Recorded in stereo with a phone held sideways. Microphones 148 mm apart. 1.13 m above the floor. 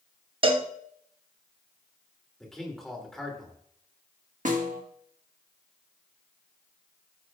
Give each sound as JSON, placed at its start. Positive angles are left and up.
{"t": 0.4, "sound": "a cowbell", "side_deg": -35, "distance_m": 0.9}
{"t": 2.4, "sound": "a man speaking", "side_deg": 0, "distance_m": 2.5}
{"t": 4.5, "sound": "a snare drum", "side_deg": -60, "distance_m": 1.4}